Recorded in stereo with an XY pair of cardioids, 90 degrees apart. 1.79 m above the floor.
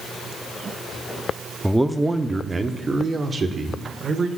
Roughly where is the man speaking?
Ahead.